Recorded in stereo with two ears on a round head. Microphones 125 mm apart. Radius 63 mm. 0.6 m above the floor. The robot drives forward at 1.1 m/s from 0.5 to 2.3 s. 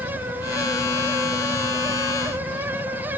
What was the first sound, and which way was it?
A helicopter, 40° left (ahead or behind).